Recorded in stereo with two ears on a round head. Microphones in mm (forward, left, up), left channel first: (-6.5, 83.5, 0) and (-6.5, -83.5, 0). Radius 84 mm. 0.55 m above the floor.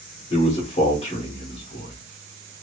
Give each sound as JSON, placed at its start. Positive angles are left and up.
{"t": 0.3, "sound": "a man speaking", "side_deg": 30, "distance_m": 1.0}